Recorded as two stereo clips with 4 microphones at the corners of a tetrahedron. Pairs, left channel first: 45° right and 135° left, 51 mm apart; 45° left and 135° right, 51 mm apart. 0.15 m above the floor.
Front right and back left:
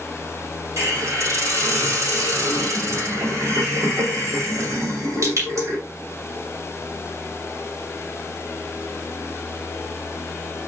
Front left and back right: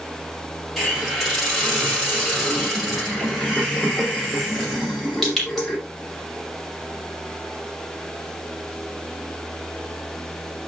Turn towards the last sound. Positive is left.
turn(degrees=135)